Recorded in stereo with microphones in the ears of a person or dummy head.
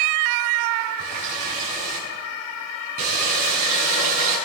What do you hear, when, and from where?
1.0 s a running tap: 50° right (ahead or behind), 9 m